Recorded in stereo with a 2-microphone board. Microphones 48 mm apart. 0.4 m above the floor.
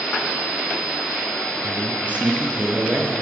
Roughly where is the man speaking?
Right.